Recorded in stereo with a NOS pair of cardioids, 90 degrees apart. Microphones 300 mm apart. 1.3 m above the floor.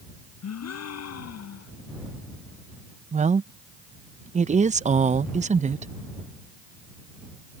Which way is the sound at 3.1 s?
25° right.